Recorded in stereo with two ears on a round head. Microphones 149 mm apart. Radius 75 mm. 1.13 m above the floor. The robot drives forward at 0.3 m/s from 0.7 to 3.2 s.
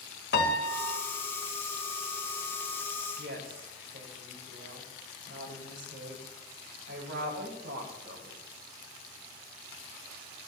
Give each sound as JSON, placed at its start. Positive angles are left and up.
{"t": 0.3, "sound": "a piano", "side_deg": 70, "distance_m": 1.7}
{"t": 3.2, "sound": "a woman speaking", "side_deg": -75, "distance_m": 5.5}